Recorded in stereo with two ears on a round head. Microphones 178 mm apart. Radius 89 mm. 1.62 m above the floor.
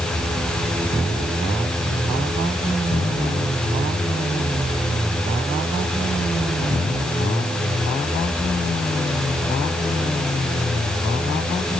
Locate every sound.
Only background noise.